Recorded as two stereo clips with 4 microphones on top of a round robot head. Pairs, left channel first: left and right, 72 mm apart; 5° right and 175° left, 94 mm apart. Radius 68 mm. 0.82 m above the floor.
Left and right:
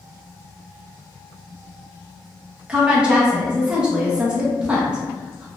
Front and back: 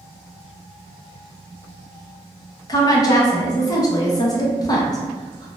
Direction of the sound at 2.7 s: 20° right.